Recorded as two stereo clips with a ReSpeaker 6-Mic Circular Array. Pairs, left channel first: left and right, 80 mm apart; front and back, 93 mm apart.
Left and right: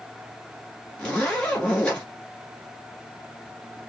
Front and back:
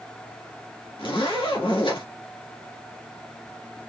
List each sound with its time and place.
1.0 s a zipper: 15° left, 2.5 m